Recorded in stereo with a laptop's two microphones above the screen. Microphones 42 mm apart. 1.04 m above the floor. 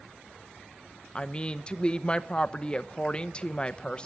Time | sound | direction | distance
1.1 | a woman speaking | 25° left (ahead or behind) | 0.9 m